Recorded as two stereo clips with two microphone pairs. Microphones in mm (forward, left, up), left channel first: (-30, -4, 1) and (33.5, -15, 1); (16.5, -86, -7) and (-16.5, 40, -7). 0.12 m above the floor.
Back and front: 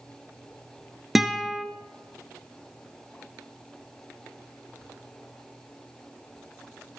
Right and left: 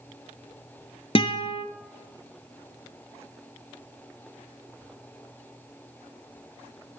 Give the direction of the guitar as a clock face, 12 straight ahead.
3 o'clock.